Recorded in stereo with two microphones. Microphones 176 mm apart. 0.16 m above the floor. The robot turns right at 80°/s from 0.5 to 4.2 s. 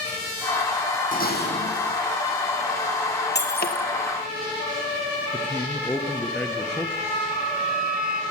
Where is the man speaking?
10° left (ahead or behind), 3 m.